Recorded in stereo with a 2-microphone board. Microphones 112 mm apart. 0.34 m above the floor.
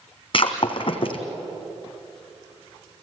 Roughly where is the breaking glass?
Left.